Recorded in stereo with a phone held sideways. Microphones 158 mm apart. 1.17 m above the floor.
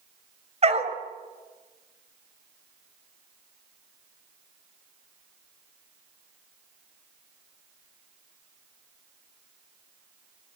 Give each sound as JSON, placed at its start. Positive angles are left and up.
{"t": 0.6, "sound": "a dog barking", "side_deg": -40, "distance_m": 3.0}